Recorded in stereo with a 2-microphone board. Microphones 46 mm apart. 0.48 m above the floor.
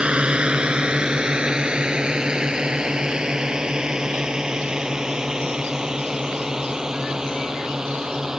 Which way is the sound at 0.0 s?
25° right (ahead or behind).